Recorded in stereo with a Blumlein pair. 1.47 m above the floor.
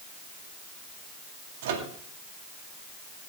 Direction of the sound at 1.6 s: 55° right.